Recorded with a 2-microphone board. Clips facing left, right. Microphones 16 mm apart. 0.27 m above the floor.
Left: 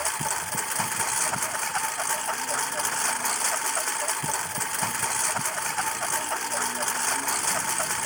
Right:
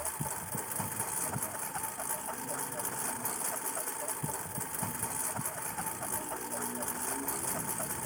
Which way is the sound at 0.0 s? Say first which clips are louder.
Left 11 dB; 55° left (ahead or behind).